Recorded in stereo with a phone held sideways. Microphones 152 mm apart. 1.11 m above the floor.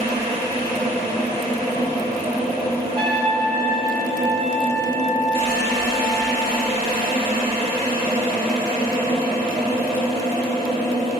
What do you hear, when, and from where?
0.0 s a machine running: 70° left (ahead or behind), 1.7 m
3.0 s a trumpet: 30° right (ahead or behind), 1.0 m